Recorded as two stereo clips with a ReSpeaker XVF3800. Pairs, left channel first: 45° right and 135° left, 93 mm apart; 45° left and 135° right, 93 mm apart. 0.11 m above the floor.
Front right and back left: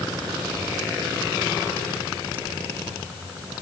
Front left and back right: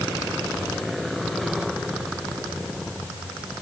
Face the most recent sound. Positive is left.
No sound to turn to.